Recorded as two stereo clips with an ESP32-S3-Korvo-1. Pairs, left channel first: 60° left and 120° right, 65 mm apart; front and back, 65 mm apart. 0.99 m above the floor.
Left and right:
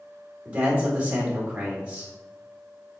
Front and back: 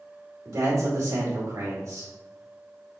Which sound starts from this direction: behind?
A man speaking, at 0.5 s.